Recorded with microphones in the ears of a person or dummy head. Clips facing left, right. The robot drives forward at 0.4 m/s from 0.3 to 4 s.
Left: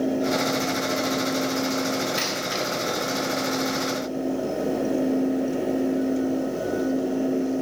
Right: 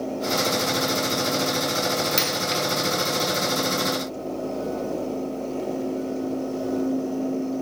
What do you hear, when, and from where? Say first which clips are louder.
2.2 s a dropped coin: right 2 dB; 35° right (ahead or behind), 1.4 m; by 2.6 s 30° right (ahead or behind), 1.6 m